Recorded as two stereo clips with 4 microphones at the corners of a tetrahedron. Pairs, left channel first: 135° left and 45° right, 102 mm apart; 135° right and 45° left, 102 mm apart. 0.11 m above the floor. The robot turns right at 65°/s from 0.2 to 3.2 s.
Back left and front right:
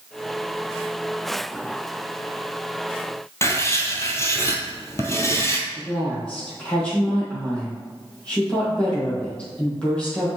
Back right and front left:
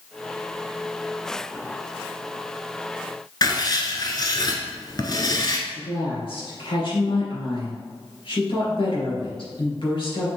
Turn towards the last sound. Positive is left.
turn(degrees=-150)